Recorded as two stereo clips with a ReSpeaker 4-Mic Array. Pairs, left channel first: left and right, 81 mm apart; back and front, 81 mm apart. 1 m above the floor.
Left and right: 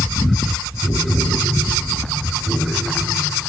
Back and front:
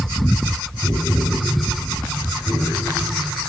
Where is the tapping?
100° right, 6 m.